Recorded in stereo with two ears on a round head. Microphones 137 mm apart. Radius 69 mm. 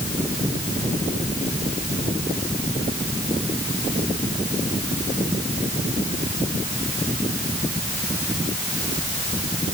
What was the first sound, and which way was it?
Only background noise.